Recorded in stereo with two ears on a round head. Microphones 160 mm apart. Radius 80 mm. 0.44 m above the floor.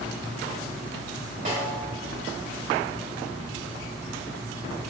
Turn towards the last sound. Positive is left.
turn(degrees=-45)  # may be behind; listen again after turning